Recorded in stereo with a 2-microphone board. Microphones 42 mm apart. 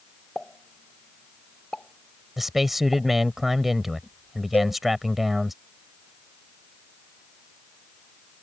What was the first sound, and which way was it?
A pop, 25° left (ahead or behind).